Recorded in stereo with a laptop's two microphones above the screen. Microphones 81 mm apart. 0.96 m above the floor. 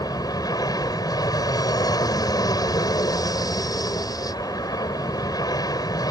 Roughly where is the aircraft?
Left.